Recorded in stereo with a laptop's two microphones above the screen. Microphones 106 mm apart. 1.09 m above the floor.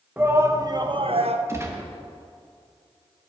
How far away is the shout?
About 0.9 m.